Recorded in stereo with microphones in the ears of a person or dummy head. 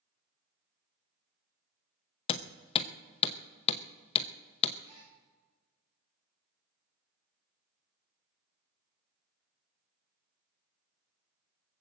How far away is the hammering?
About 0.7 m.